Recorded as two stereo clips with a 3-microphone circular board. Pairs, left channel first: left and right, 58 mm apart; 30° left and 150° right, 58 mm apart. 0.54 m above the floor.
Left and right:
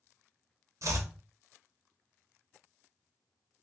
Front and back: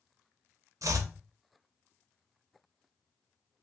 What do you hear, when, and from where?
0.8 s chopping: 125° right, 0.6 m